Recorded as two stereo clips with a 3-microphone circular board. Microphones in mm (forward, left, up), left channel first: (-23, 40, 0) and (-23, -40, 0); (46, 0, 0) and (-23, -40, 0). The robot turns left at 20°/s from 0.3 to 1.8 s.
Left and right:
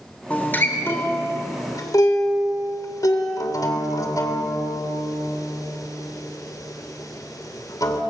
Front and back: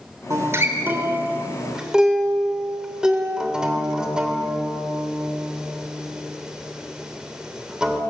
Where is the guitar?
160° left, 3 m; by 8.0 s 130° left, 3 m.